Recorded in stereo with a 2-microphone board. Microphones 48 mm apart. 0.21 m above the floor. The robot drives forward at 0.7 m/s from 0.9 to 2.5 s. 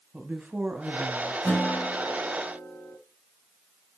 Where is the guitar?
35° left (ahead or behind), 3 m; by 3.0 s 30° left (ahead or behind), 3.5 m.